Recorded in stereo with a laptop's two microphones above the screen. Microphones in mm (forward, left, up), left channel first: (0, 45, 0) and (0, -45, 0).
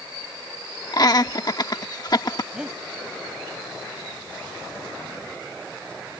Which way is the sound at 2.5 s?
10° right (ahead or behind).